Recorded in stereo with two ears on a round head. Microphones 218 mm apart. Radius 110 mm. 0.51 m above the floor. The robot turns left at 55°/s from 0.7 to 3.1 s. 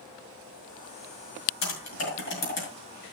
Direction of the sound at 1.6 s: 80° left.